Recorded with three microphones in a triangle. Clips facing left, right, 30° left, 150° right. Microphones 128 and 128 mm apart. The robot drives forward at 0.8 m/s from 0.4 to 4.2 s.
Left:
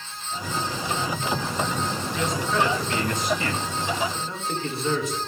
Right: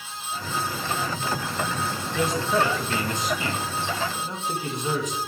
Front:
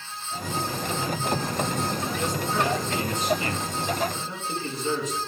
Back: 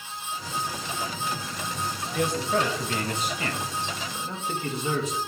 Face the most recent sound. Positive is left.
turn(degrees=-160)